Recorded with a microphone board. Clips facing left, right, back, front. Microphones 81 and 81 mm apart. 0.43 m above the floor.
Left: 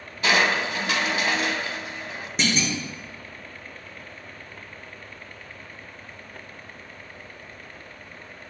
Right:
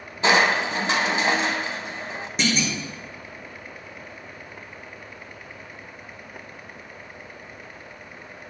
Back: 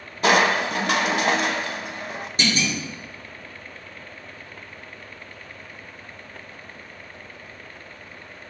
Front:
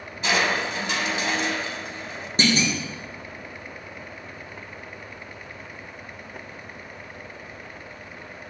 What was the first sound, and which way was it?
Crushing, 150° right.